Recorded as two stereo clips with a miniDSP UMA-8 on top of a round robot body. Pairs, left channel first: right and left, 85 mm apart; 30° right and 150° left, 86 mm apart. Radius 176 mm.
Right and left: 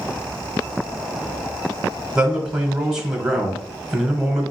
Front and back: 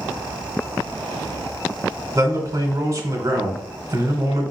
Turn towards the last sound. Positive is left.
turn(degrees=165)